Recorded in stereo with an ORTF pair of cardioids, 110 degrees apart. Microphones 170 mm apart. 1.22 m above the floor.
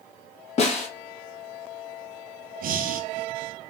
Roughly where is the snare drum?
Ahead left.